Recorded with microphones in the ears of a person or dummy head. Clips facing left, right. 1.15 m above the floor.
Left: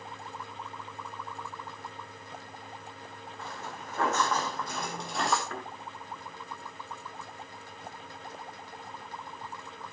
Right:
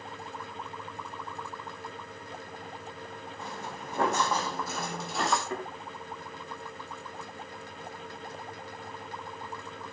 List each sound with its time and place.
3.4 s footsteps: 15° right (ahead or behind), 4.5 m; by 5.4 s centre (ahead or behind), 2.5 m
5.5 s a thud: 15° right (ahead or behind), 4 m